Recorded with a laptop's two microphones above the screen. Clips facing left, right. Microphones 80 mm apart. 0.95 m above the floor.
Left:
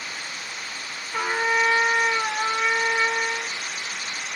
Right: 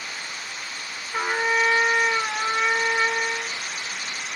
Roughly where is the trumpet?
Right.